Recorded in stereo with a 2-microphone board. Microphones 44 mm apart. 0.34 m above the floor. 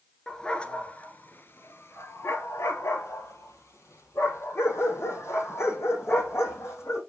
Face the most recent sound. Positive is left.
turn(degrees=70)  # may be behind; listen again after turning